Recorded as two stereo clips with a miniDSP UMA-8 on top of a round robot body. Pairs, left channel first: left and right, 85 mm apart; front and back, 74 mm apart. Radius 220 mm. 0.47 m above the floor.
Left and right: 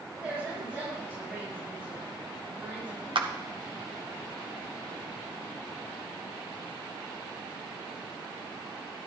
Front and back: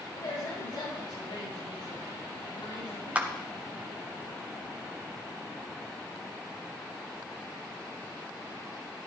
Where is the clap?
110° right, 1.2 m.